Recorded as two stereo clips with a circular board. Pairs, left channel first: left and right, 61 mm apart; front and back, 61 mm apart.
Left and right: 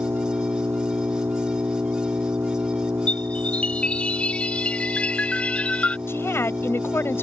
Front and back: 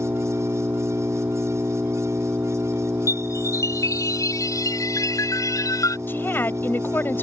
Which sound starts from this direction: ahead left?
A woman speaking, at 6.1 s.